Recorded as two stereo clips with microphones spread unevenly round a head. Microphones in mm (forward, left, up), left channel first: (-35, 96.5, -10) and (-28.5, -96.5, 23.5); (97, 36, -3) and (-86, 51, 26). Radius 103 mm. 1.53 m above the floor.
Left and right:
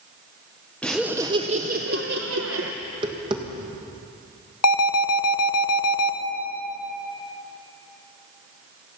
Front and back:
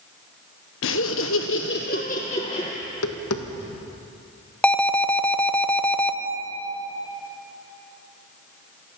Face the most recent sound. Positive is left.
turn(degrees=80)